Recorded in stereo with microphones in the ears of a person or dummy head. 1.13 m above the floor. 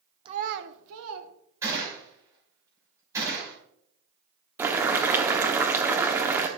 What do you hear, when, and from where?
0.2 s a child speaking: 25° right (ahead or behind), 0.8 m; by 1.3 s 80° right, 1.9 m
1.6 s a gunshot: 15° right (ahead or behind), 6 m
4.6 s boiling: 10° right (ahead or behind), 1.0 m